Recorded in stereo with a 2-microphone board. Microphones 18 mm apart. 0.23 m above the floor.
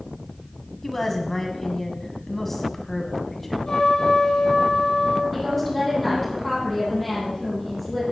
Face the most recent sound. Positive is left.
turn(degrees=-5)  # may be behind; listen again after turning